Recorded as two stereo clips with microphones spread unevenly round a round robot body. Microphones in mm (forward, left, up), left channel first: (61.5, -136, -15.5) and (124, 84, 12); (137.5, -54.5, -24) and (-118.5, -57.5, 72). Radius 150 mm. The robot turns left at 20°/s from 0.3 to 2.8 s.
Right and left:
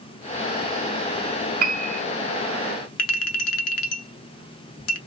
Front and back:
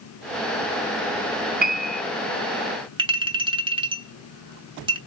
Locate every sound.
1.6 s a piano: 110° left, 0.7 m; by 2.0 s 100° left, 0.7 m
3.0 s a clink: 105° right, 0.9 m